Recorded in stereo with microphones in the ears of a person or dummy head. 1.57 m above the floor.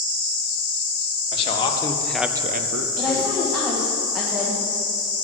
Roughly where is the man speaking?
Left.